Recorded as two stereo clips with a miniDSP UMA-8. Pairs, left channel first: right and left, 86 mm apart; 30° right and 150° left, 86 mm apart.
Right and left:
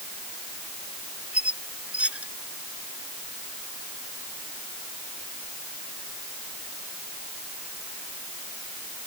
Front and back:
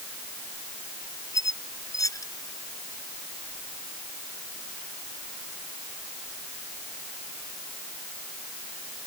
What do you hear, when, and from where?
1.3 s a squeak: 15° left